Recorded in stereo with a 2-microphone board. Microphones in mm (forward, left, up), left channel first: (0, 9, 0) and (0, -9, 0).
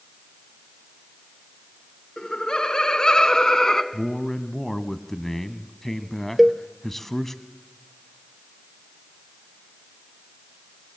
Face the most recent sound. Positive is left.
turn(degrees=-10)  # may be behind; listen again after turning